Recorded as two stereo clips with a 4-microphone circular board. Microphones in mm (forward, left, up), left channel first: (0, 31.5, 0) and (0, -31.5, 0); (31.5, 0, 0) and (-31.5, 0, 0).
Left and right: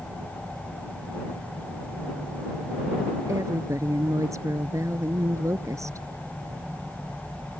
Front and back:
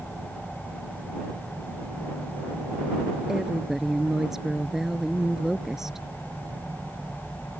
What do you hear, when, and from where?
3.3 s a woman speaking: 100° right